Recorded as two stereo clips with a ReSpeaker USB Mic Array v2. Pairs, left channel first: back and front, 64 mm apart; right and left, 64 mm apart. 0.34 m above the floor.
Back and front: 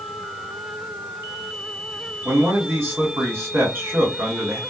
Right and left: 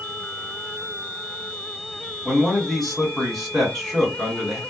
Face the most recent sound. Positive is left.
turn(degrees=-5)